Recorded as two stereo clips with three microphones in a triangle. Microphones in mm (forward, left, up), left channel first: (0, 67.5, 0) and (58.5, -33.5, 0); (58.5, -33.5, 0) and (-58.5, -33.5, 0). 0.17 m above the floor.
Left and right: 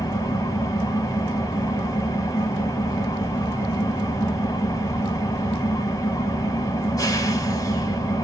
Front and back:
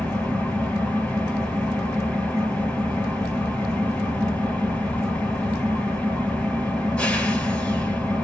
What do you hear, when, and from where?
0.0 s an engine running: 75° left, 1.5 m